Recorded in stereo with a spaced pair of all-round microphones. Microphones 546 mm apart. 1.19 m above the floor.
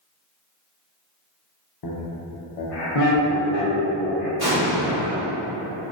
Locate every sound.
1.8 s laughter: 50° left (ahead or behind), 0.5 m; by 4.3 s 75° left (ahead or behind), 1.5 m
4.4 s an explosion: 15° right (ahead or behind), 1.4 m